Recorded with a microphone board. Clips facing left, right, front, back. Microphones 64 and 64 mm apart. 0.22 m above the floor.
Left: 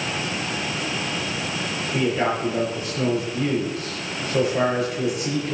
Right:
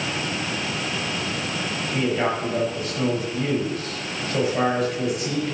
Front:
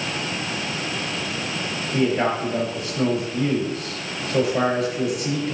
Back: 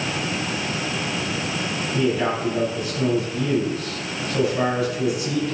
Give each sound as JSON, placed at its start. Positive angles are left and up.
{"t": 1.9, "sound": "a man speaking", "azimuth_deg": 10, "distance_m": 4.5}